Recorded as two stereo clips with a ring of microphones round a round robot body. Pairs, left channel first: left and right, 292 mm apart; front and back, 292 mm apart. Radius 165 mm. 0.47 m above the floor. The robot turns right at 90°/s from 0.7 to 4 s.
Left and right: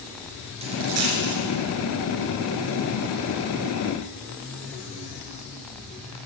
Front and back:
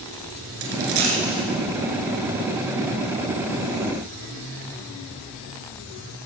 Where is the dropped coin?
165° right, 2.0 m; by 1.4 s 100° right, 2.0 m.